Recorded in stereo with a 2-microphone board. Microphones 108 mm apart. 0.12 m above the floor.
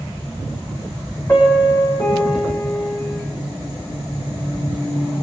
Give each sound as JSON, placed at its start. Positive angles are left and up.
{"t": 1.3, "sound": "a piano", "side_deg": 25, "distance_m": 6.0}